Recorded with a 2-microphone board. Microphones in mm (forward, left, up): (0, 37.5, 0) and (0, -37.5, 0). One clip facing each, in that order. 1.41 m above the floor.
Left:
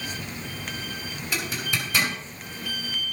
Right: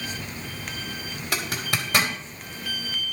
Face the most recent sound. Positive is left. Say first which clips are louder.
# right 1 dB
turn(degrees=-70)  # may be behind; listen again after turning